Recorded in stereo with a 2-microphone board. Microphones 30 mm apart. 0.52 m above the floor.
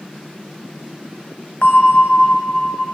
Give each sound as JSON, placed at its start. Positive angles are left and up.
{"t": 1.6, "sound": "a bell", "side_deg": 50, "distance_m": 0.7}